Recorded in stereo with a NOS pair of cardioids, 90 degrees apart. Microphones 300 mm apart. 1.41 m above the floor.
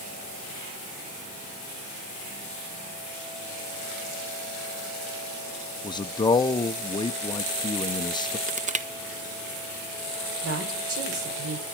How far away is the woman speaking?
About 6 m.